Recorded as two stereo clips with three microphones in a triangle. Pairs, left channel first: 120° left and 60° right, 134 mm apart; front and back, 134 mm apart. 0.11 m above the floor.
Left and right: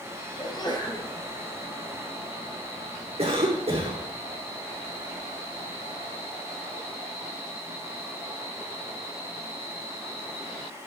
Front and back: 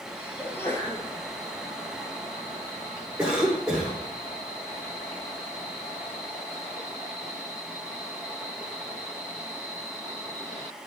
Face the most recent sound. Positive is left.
turn(degrees=-95)